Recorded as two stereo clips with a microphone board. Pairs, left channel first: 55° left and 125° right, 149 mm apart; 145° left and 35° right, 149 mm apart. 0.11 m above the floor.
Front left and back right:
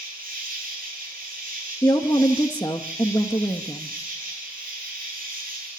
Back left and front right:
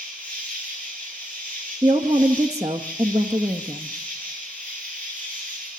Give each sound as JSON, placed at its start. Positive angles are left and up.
{"t": 0.0, "sound": "an insect", "azimuth_deg": -135, "distance_m": 5.0}
{"t": 1.8, "sound": "a woman speaking", "azimuth_deg": 15, "distance_m": 1.1}